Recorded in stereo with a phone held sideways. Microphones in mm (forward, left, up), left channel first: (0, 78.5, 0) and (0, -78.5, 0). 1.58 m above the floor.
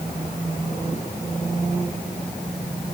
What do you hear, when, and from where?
Only background noise.